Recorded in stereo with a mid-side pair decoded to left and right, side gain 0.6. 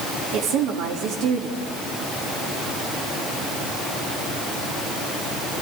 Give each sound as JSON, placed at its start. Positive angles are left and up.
{"t": 0.3, "sound": "a woman speaking", "azimuth_deg": -65, "distance_m": 3.5}